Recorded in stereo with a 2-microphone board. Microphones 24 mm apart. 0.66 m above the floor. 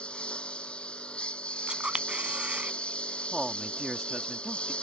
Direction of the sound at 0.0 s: 50° left (ahead or behind).